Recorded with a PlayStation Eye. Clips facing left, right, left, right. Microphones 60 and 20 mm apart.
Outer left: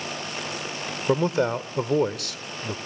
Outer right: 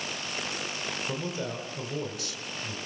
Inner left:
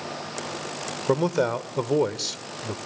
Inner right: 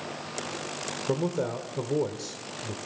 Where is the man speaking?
65° left (ahead or behind), 1.4 m.